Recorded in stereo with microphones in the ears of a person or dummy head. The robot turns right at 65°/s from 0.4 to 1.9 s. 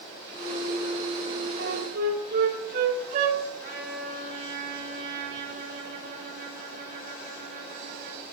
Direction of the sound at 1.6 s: 75° right (ahead or behind).